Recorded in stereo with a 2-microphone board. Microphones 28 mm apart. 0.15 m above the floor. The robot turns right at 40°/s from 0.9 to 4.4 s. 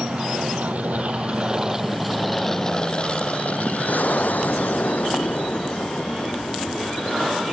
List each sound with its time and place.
0.0 s an aircraft: 65° right (ahead or behind); by 7.5 s 70° left (ahead or behind)